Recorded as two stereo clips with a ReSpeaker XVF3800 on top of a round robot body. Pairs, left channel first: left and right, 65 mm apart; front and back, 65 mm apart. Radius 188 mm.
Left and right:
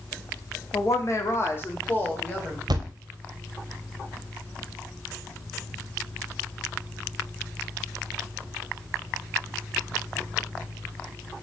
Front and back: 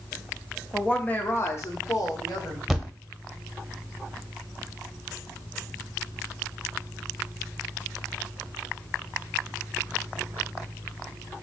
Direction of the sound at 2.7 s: 90° right.